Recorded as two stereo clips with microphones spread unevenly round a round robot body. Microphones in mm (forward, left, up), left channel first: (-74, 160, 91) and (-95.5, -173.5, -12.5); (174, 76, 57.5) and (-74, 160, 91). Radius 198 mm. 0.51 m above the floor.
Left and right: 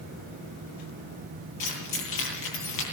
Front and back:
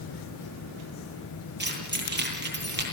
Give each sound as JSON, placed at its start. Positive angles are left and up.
{"t": 1.6, "sound": "keys jangling", "azimuth_deg": 115, "distance_m": 9.5}